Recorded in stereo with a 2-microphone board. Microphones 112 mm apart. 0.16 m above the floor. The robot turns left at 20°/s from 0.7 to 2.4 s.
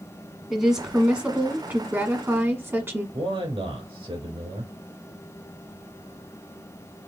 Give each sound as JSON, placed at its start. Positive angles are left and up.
{"t": 0.5, "sound": "a woman speaking", "azimuth_deg": -10, "distance_m": 1.4}
{"t": 3.1, "sound": "a man speaking", "side_deg": -55, "distance_m": 3.0}